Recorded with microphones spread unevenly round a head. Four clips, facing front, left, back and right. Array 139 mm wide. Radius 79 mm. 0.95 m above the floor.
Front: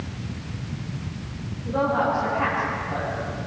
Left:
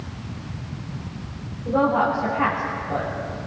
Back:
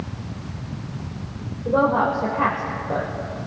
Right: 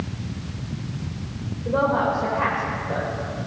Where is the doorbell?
I don't hear a doorbell.